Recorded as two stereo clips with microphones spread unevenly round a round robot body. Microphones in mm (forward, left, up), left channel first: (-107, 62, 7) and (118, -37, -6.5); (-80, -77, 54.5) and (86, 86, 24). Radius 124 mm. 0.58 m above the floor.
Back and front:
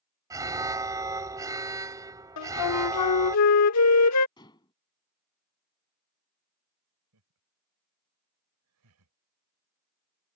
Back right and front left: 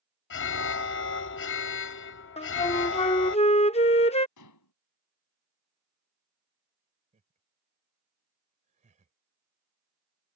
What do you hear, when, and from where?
0.3 s an alarm: 100° right
2.4 s a flute: 160° left
4.4 s dishes clattering: 130° right
7.1 s laughter: 15° right